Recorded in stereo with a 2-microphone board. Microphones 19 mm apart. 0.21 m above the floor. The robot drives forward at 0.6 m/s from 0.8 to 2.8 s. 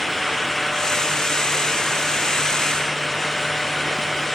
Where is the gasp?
No gasp in this recording.